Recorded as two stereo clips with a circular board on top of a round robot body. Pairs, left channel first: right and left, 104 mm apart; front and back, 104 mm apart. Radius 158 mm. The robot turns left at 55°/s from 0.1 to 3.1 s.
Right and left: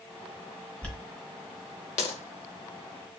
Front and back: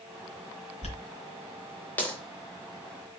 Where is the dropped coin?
10° right, 0.8 m; by 3.2 s 135° right, 0.8 m.